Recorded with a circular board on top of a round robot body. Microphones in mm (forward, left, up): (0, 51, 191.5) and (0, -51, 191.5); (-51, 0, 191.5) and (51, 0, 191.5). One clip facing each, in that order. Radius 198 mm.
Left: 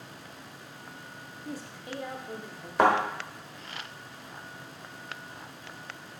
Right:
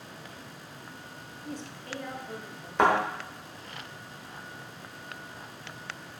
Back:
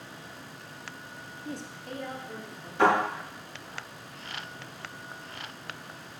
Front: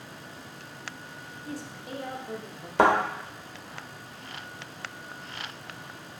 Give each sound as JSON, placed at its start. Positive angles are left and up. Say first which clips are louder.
{"t": 1.4, "sound": "a woman speaking", "louder": "even, front 1 dB", "azimuth_deg": 175, "distance_m": 0.8}
{"t": 2.8, "sound": "a thud", "louder": "left 1 dB, front 2 dB", "azimuth_deg": 5, "distance_m": 1.2}